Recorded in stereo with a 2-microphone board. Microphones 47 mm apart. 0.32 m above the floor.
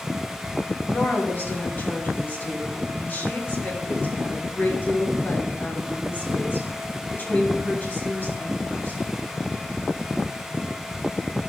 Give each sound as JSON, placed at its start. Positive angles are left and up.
{"t": 0.9, "sound": "a woman speaking", "side_deg": 40, "distance_m": 3.0}